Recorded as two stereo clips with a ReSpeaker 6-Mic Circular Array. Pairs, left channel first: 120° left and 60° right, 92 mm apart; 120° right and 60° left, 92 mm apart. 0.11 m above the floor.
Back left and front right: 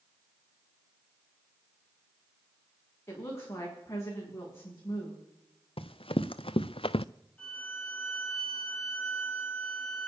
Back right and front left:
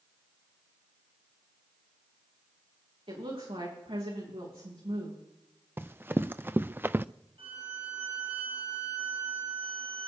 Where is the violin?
45° left, 5 m.